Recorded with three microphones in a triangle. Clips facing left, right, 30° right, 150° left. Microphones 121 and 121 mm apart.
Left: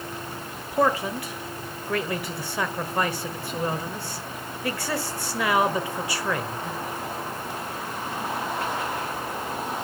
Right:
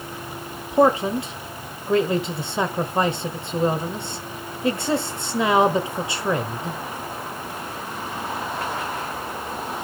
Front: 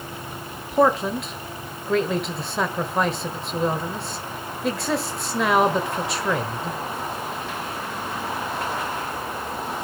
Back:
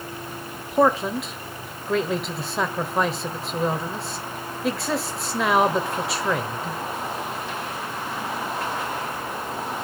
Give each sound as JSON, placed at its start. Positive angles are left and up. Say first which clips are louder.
{"t": 0.7, "sound": "a man speaking", "louder": "right 6 dB, even", "azimuth_deg": -120, "distance_m": 1.2}